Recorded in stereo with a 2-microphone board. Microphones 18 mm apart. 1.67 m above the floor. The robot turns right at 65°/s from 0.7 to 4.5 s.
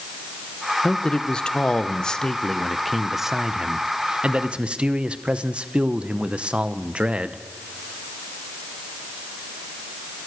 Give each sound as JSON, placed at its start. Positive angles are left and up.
{"t": 0.8, "sound": "a man speaking", "azimuth_deg": 40, "distance_m": 0.9}